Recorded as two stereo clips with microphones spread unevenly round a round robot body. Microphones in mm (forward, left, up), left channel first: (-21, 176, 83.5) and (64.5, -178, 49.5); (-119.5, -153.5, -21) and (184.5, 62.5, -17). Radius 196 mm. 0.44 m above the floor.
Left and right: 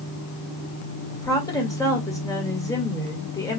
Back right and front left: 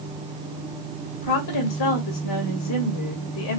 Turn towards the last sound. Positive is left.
turn(degrees=-175)